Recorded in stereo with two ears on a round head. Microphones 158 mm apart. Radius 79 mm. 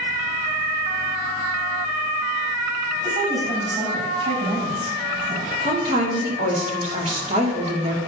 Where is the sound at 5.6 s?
40° right (ahead or behind), 2.5 m.